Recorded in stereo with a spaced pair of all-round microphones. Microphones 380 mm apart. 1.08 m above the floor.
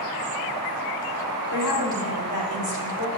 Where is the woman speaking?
75° left (ahead or behind), 3 m.